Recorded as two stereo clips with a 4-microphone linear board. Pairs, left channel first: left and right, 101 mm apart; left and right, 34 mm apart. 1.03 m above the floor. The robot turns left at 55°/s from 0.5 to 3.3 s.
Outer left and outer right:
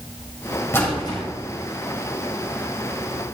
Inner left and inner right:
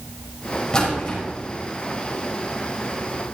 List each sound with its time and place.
0.7 s a splash: 25° left (ahead or behind), 4.5 m; by 1.2 s 50° left (ahead or behind), 4.5 m